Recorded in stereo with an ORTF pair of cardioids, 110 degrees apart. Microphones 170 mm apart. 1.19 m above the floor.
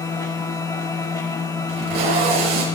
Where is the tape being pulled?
70° right, 5.5 m.